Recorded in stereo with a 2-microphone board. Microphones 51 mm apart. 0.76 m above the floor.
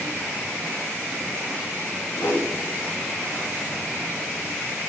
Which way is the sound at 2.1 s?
65° left (ahead or behind).